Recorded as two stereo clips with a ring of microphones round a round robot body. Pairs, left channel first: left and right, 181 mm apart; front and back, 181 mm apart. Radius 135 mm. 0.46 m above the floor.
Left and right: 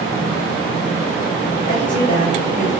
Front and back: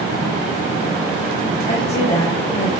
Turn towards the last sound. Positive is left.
turn(degrees=50)